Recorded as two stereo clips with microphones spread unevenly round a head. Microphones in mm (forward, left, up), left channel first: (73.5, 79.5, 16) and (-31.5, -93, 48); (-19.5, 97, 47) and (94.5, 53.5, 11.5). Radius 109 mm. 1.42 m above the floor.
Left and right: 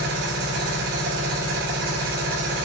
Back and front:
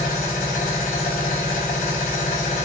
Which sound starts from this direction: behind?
A machine running, at 0.0 s.